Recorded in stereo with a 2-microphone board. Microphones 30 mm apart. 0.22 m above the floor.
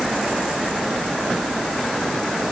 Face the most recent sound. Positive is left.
No sound to turn to.